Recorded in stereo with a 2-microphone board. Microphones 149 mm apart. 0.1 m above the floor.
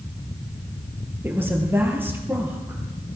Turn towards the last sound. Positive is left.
turn(degrees=-15)  # may be behind; listen again after turning